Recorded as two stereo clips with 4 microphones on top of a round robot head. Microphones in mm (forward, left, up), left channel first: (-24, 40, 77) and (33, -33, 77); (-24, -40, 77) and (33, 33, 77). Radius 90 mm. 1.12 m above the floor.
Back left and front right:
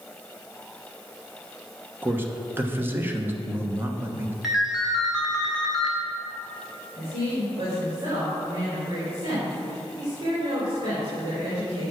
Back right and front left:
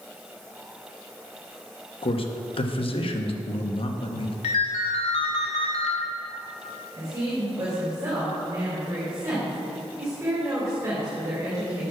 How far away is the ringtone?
About 1.5 m.